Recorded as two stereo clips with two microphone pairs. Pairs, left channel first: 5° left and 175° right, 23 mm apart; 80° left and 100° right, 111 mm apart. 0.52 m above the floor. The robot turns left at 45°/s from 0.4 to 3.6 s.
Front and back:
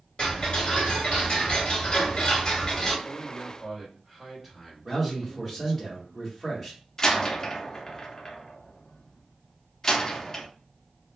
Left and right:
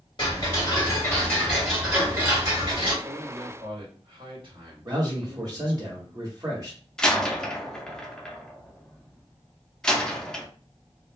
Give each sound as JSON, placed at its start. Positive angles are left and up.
{"t": 0.2, "sound": "ticking", "azimuth_deg": 45, "distance_m": 1.7}
{"t": 3.0, "sound": "a man speaking", "azimuth_deg": -75, "distance_m": 1.8}
{"t": 4.8, "sound": "a man speaking", "azimuth_deg": -80, "distance_m": 1.3}
{"t": 7.0, "sound": "a door slam", "azimuth_deg": 0, "distance_m": 0.5}